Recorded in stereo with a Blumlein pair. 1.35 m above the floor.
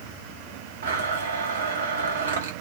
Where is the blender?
65° right, 0.8 m.